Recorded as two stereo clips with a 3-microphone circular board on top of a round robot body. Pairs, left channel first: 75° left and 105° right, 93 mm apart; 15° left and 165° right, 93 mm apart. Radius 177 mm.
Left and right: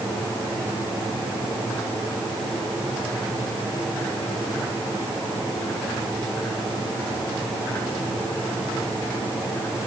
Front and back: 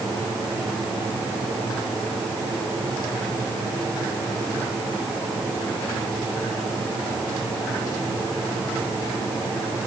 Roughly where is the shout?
I don't hear a shout.